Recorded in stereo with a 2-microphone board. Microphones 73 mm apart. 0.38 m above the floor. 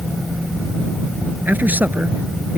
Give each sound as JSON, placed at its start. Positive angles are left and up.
{"t": 1.4, "sound": "a man speaking", "side_deg": -25}